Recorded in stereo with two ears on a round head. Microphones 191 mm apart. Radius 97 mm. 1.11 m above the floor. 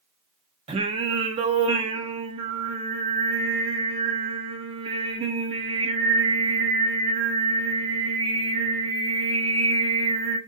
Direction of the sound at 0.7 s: 25° right (ahead or behind).